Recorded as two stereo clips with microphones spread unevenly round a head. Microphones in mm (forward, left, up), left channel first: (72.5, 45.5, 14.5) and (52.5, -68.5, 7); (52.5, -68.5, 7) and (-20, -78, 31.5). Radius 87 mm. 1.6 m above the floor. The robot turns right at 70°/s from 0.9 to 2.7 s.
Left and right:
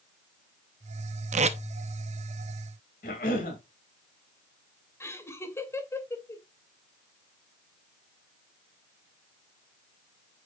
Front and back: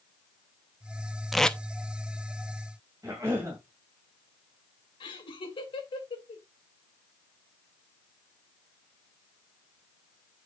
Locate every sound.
1.3 s tape being pulled: 95° right, 0.7 m; by 1.6 s 75° right, 0.7 m
3.0 s a cough: 115° left, 2.5 m
5.0 s laughter: 15° left, 2.5 m